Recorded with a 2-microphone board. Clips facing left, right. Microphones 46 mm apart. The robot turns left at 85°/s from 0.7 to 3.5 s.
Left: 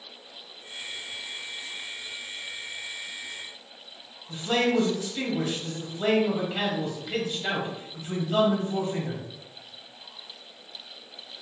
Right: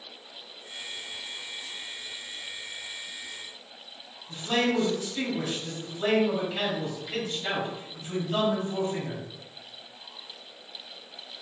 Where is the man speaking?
15° left (ahead or behind), 1.5 m.